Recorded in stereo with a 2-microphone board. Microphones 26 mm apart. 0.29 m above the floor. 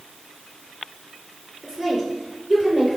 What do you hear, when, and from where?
1.6 s a woman speaking: 10° right (ahead or behind), 5 m; by 3.0 s 5° right (ahead or behind), 5.5 m